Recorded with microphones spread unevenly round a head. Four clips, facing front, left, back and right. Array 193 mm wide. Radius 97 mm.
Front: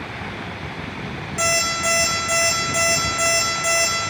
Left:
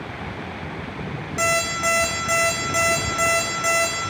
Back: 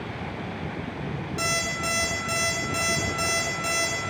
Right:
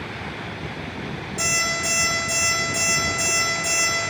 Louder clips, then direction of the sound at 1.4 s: Left 6 dB, front 8 dB; 45° left.